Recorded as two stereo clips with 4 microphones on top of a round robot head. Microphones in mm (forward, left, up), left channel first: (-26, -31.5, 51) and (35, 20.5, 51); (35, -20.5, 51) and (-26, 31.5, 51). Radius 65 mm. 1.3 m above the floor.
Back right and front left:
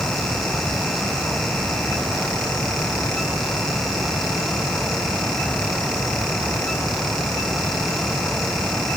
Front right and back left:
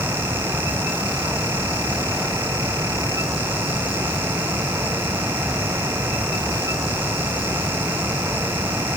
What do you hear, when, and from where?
Only background noise.